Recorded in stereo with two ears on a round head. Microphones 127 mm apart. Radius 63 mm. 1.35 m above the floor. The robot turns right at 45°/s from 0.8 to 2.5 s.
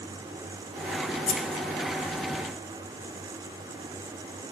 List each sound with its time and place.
1.3 s scissors: 45° left (ahead or behind), 2.5 m; by 1.6 s 30° left (ahead or behind), 2.5 m